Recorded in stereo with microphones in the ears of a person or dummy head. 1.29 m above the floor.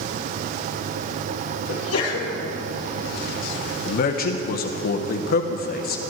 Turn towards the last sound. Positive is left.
turn(degrees=55)  # may be behind; listen again after turning